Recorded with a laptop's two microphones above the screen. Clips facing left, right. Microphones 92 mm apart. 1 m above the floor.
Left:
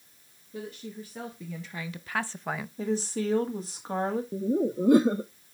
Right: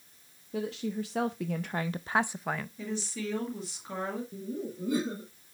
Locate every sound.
0.5 s a woman speaking: 80° right, 1.2 m; by 2.7 s 10° left (ahead or behind), 0.6 m
2.8 s a woman speaking: 35° left (ahead or behind), 1.6 m
4.3 s laughter: 55° left (ahead or behind), 0.6 m